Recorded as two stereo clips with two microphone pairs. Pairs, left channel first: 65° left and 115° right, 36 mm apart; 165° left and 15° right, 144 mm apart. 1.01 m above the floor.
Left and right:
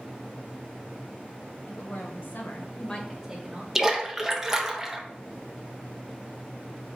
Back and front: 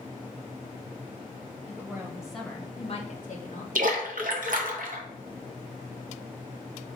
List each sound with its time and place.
1.7 s a woman speaking: 60° left, 1.3 m; by 3.6 s 175° right, 0.9 m
3.8 s a splash: 35° right, 0.6 m